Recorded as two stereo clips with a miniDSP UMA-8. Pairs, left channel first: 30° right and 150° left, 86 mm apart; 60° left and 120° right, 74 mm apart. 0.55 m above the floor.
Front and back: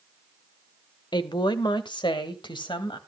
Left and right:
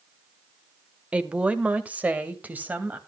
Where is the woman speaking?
45° right, 1.4 m; by 3.0 s 50° right, 2.5 m.